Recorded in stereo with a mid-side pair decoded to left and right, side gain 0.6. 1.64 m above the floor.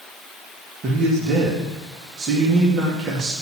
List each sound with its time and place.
0.8 s a man speaking: 45° right, 3 m